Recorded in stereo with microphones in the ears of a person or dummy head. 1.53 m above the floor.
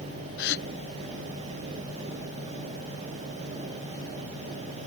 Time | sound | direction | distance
0.4 | a gasp | 65° left (ahead or behind) | ?